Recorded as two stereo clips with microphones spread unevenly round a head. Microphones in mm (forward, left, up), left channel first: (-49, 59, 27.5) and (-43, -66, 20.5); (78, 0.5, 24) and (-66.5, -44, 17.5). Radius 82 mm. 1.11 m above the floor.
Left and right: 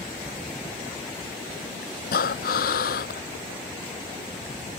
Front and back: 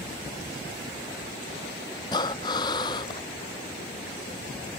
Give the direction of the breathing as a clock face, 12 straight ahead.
9 o'clock.